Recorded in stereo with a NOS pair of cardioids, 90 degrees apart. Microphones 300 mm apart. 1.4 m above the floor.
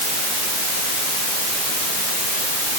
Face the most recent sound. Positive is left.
No sound to turn to.